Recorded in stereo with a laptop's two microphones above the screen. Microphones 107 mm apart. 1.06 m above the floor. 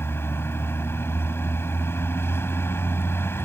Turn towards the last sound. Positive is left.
turn(degrees=25)  # may be behind; listen again after turning